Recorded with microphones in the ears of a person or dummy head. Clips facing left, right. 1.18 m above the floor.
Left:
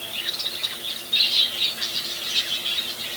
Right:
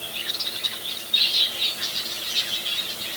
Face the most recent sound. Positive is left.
No sound to turn to.